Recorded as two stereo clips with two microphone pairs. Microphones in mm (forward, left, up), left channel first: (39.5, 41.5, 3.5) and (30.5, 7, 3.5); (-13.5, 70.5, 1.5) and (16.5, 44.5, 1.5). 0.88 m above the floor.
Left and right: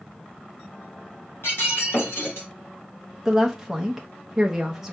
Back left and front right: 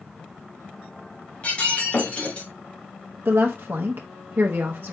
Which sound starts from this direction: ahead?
A woman speaking, at 3.2 s.